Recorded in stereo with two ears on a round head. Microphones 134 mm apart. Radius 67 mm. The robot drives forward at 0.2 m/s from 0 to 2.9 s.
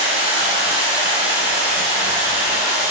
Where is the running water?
35° right (ahead or behind), 1.1 m; by 2.9 s 25° right (ahead or behind), 1.6 m.